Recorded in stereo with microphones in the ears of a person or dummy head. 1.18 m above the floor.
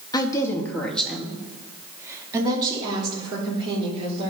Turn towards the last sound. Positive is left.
turn(degrees=-35)  # may be behind; listen again after turning